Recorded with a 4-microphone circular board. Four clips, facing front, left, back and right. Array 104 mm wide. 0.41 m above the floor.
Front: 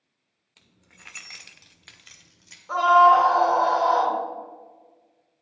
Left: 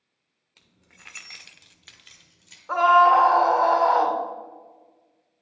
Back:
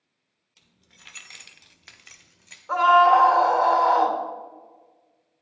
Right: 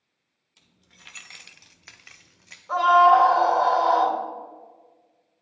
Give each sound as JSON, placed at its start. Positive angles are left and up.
{"t": 0.6, "sound": "keys jangling", "azimuth_deg": 50, "distance_m": 0.7}
{"t": 2.7, "sound": "a scream", "azimuth_deg": 120, "distance_m": 1.0}